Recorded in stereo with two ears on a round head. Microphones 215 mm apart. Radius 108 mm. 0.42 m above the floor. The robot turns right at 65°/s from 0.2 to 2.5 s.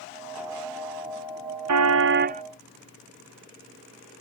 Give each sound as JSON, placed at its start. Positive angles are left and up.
{"t": 1.7, "sound": "a car horn", "azimuth_deg": -75}